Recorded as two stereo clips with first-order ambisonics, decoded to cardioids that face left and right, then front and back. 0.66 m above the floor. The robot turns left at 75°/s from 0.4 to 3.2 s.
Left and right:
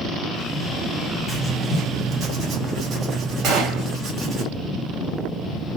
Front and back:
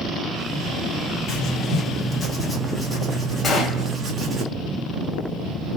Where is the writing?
10° left, 0.8 m; by 4.4 s 135° right, 0.8 m.